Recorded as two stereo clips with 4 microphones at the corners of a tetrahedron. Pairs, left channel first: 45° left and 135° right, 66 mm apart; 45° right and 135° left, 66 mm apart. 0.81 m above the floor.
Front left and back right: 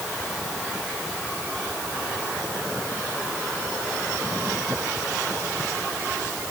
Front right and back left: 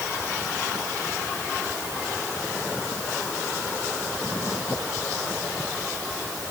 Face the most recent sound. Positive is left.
No sound to turn to.